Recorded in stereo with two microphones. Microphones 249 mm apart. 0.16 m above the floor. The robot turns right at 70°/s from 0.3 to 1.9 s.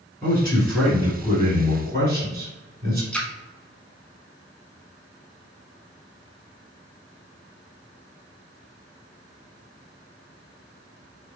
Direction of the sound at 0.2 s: 155° left.